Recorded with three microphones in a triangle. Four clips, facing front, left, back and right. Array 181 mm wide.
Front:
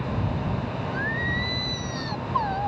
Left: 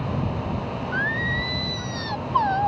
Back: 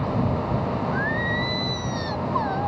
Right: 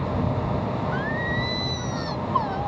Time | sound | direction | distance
0.9 | singing | 90° left | ?